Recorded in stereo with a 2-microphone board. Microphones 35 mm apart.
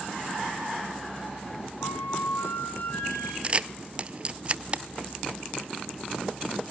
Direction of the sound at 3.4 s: 30° right (ahead or behind).